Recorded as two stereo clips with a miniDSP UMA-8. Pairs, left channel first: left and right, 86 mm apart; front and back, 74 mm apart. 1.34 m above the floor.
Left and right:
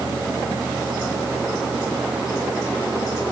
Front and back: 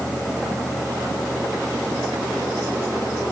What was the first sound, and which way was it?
Only background noise.